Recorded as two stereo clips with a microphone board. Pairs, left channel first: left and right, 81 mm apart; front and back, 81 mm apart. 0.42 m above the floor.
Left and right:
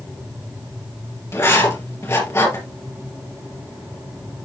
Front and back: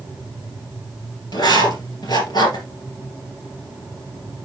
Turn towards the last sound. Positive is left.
turn(degrees=35)